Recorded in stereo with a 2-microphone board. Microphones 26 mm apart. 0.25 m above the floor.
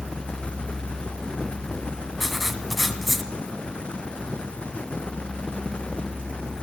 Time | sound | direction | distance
2.2 | writing | centre (ahead or behind) | 1.7 m